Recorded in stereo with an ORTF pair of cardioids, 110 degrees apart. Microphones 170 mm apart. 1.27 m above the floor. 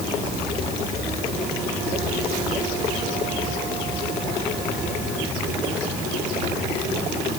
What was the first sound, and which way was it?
Only background noise.